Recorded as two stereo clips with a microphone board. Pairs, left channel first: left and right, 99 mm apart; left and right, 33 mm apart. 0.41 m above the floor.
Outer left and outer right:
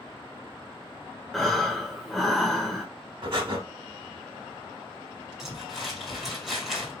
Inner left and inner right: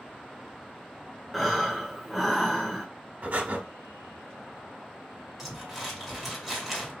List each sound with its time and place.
1.3 s breathing: centre (ahead or behind), 0.8 m
3.2 s breathing: 55° right (ahead or behind), 0.9 m
5.4 s crumpling: 5° right (ahead or behind), 1.9 m